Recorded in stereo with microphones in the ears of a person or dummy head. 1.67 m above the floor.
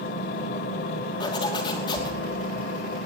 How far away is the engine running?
About 1.8 m.